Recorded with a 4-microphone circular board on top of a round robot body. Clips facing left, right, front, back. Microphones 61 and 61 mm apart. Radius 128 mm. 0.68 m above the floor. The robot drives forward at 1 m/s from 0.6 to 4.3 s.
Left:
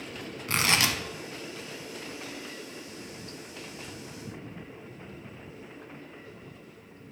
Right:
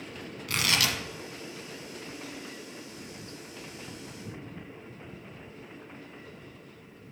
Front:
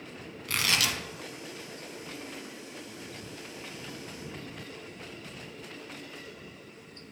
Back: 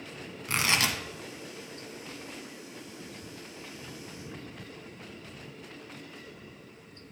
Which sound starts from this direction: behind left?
Tearing paper, at 0.5 s.